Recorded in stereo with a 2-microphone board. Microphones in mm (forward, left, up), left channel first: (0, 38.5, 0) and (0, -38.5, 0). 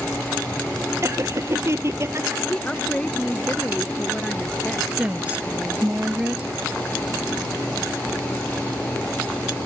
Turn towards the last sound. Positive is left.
turn(degrees=-15)  # may be behind; listen again after turning